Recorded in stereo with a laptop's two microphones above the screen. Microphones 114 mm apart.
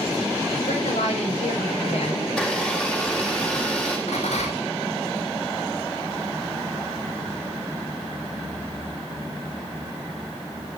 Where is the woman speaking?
85° left, 5 m.